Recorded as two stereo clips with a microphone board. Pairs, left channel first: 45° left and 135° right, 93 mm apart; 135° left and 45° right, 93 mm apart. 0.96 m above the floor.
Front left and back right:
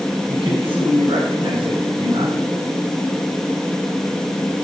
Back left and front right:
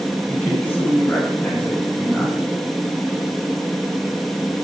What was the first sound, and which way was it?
A man speaking, 150° right.